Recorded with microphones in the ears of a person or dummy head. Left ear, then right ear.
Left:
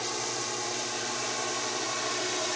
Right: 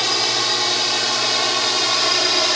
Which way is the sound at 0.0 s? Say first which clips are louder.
Right 14 dB; 70° right (ahead or behind).